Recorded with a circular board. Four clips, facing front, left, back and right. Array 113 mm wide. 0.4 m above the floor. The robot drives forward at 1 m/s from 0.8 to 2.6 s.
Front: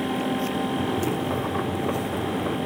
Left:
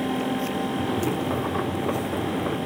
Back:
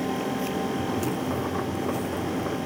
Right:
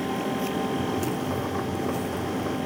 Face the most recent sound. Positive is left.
No sound to turn to.